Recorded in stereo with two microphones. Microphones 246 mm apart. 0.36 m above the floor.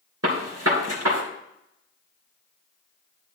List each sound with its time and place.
0.2 s a gunshot: 80° right, 2.5 m